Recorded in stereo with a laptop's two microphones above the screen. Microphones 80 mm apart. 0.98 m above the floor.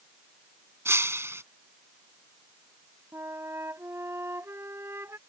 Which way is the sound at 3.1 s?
30° right (ahead or behind).